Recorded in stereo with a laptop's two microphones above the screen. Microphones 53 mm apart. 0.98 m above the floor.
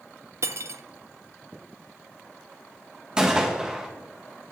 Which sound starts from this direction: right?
Cutlery clinking, at 0.4 s.